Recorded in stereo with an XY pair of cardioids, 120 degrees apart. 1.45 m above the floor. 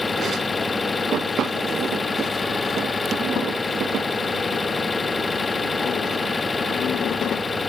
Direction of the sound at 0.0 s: 20° left.